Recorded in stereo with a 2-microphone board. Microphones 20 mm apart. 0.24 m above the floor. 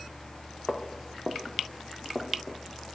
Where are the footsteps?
40° left (ahead or behind), 1.9 m; by 2.6 s 15° right (ahead or behind), 2 m.